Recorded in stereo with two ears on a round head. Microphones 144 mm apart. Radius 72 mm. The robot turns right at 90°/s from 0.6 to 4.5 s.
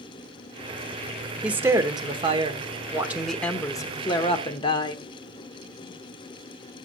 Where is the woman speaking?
170° right, 1.2 m; by 5.0 s 110° left, 1.2 m.